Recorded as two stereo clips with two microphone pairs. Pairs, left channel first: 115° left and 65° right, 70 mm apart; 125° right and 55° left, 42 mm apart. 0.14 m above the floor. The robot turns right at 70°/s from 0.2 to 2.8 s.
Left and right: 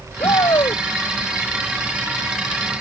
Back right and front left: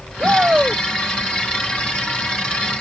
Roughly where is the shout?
Left.